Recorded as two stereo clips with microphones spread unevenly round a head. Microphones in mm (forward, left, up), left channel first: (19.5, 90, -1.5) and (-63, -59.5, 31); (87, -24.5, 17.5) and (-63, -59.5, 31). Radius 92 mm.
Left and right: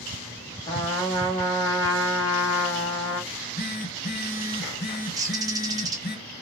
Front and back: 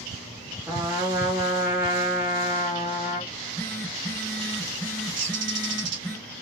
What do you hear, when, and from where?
0.7 s a trumpet: 125° left, 1.0 m
3.3 s a phone buzzing: 90° left, 1.5 m
5.2 s a bird: 170° left, 1.0 m